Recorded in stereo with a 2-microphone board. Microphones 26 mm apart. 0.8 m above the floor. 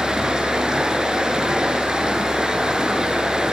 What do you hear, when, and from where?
0.0 s running water: 25° right (ahead or behind), 6 m